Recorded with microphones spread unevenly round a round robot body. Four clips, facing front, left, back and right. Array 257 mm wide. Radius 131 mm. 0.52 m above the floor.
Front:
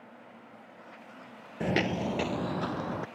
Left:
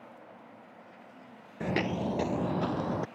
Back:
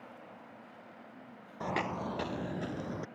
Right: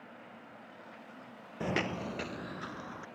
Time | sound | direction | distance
1.6 | footsteps | 15° left | ?